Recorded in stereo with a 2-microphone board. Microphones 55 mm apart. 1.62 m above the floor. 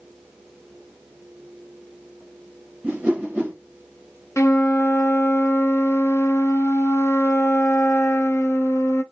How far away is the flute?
About 0.5 m.